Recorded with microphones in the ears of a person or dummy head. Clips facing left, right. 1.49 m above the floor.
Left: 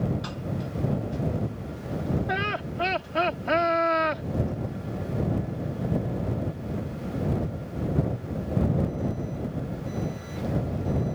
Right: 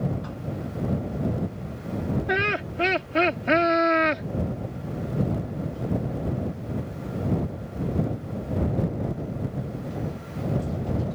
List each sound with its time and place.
2.3 s laughter: 30° right (ahead or behind)